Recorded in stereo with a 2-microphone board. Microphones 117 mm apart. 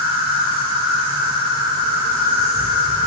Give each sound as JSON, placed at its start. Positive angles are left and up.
{"t": 0.0, "sound": "an insect", "side_deg": -50, "distance_m": 1.2}